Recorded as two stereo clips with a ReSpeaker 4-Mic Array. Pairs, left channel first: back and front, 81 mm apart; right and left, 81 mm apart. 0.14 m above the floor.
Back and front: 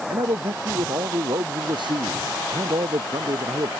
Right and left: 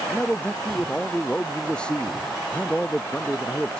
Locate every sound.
0.1 s a man speaking: 15° right